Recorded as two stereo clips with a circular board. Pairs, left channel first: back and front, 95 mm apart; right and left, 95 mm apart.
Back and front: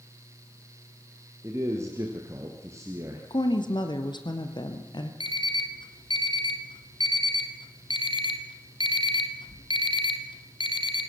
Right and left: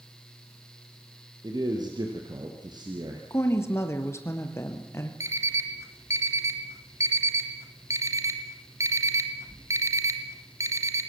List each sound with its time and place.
1.4 s a man speaking: 55° left, 3 m
3.3 s a woman speaking: 150° right, 2.5 m
5.2 s an alarm clock: 150° left, 1.8 m